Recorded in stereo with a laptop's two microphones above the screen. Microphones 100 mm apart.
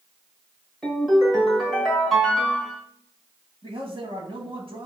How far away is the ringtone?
About 1.6 m.